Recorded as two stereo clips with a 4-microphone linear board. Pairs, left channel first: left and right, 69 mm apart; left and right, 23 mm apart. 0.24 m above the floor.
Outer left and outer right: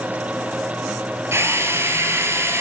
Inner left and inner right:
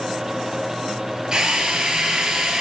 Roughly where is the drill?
Right.